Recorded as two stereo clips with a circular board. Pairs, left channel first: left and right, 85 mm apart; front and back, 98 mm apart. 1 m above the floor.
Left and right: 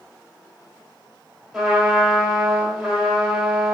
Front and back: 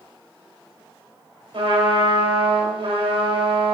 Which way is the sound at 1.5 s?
175° right.